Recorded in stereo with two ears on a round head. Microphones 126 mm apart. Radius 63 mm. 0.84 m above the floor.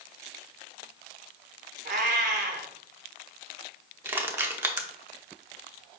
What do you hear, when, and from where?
1.9 s a cat meowing: 65° right (ahead or behind), 0.8 m
4.0 s crushing: 15° right (ahead or behind), 0.6 m